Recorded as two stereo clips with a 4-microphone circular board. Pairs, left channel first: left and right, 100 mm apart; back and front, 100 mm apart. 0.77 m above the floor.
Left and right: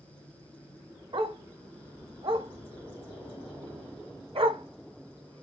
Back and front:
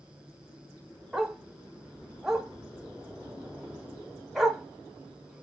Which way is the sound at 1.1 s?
85° right.